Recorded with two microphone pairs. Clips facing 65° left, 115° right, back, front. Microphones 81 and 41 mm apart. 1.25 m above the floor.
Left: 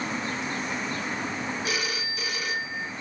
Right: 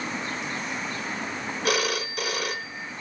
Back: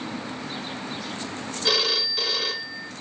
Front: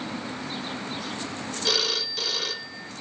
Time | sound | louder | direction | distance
1.6 | a phone ringing | right 5 dB, back 3 dB | 100° right | 0.8 m